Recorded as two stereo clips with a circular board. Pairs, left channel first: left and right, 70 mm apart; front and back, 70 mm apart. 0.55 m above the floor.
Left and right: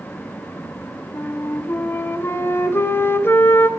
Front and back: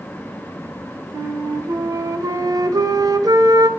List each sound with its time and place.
1.1 s a flute: 150° left, 0.7 m